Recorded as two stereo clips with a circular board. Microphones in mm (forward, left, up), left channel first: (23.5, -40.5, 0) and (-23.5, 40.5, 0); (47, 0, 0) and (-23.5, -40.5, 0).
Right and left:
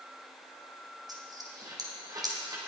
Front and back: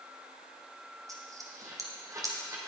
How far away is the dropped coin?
About 3 m.